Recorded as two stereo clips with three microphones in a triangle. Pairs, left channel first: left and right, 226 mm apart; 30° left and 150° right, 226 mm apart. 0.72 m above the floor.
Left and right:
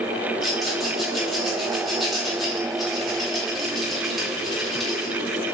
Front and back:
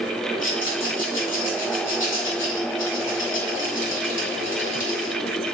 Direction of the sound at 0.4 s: Straight ahead.